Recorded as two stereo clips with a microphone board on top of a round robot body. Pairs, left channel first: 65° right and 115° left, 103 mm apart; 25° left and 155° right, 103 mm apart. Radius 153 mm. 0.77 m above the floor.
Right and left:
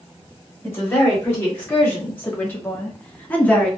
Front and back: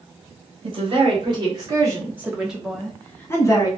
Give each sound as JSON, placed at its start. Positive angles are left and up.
{"t": 0.6, "sound": "a woman speaking", "azimuth_deg": -140, "distance_m": 1.4}